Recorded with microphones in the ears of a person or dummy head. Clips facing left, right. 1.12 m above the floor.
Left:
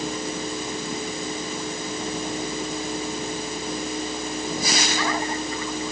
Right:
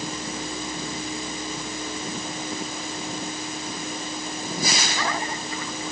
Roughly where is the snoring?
No snoring in this recording.